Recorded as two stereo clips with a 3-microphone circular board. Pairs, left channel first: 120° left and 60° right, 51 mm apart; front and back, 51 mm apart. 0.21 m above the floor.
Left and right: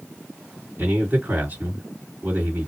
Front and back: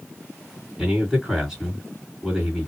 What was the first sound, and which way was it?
A man speaking, 95° right.